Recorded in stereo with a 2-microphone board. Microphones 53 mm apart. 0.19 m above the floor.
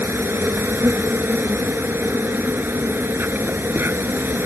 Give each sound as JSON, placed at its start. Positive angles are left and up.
{"t": 0.0, "sound": "an insect", "side_deg": -45}